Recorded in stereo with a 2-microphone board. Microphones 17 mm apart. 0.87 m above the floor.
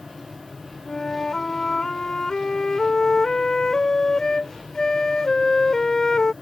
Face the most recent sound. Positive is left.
turn(degrees=40)  # may be behind; listen again after turning